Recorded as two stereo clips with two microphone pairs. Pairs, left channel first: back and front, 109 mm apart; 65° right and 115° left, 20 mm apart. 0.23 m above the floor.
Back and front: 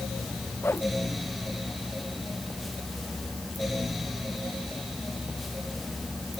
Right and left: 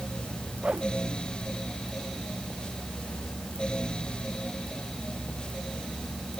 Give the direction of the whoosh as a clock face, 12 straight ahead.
8 o'clock.